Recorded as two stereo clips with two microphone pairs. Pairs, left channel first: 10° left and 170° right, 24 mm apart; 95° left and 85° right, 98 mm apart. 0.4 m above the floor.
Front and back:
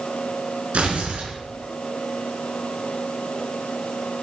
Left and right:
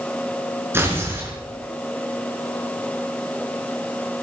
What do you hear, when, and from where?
0.7 s tearing paper: 150° right, 4 m